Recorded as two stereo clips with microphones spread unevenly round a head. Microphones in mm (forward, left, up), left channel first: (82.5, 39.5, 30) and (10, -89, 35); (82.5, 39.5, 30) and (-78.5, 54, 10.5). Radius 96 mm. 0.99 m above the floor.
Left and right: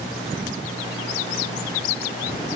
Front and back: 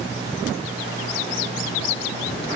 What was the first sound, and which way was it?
Only background noise.